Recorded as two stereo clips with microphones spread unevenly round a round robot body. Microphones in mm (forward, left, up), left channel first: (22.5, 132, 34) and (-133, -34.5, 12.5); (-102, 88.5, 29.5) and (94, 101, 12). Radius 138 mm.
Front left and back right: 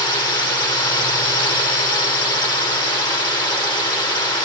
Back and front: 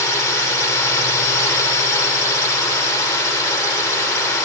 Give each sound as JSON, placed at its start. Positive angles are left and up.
{"t": 0.0, "sound": "a drone", "azimuth_deg": 115}